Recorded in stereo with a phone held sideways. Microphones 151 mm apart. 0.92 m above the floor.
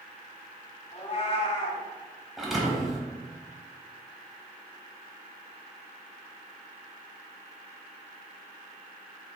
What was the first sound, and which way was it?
A cat meowing, 45° left (ahead or behind).